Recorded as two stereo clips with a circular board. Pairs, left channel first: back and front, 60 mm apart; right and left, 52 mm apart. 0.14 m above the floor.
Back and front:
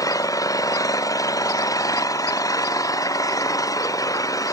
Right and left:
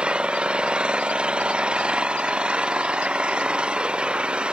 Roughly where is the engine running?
Behind.